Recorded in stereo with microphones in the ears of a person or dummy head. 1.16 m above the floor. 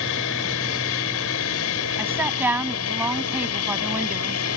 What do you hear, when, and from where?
0.0 s an aircraft: 65° left (ahead or behind); by 4.6 s 75° left (ahead or behind)
2.0 s a woman speaking: 10° right (ahead or behind)